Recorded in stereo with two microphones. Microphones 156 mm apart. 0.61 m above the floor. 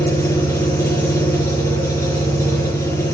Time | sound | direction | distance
0.0 | an engine running | 20° left (ahead or behind) | 3.5 m